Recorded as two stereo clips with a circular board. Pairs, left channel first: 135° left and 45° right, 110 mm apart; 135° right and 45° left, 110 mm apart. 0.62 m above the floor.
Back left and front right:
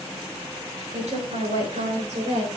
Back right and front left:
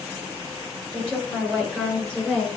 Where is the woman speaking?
50° right, 9.5 m.